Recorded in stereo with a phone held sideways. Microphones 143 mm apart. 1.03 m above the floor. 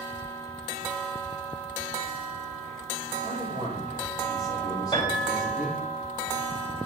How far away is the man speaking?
About 3 m.